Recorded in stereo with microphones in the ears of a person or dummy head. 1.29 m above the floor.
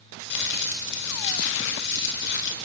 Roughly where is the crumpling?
Left.